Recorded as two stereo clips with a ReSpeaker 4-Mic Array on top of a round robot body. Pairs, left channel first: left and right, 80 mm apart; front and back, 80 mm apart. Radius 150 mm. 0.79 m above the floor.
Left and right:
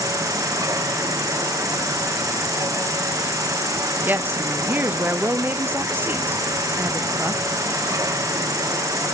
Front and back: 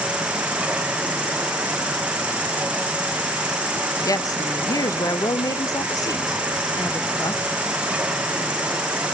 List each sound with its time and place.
0.0 s an insect: 110° right, 1.2 m
4.0 s a woman speaking: 30° right, 1.0 m